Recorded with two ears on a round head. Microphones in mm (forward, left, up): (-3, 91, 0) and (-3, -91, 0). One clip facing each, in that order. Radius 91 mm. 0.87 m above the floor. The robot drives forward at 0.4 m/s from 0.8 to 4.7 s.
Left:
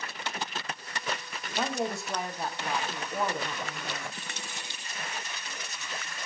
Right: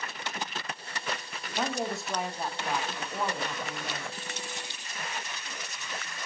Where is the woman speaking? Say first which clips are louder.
Left 1 dB; centre (ahead or behind), 0.9 m.